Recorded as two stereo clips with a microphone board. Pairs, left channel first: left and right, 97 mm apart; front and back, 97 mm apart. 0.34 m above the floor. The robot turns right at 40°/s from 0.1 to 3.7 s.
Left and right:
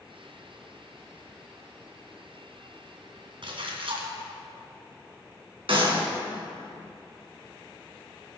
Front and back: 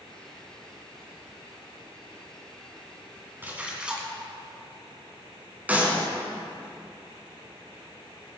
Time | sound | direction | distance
3.4 | a splash | 115° right | 2.5 m
5.7 | a clap | 110° right | 3.5 m